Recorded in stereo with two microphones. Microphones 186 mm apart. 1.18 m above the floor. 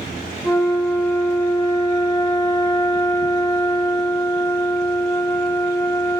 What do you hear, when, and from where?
0.4 s a flute: 15° left (ahead or behind), 0.9 m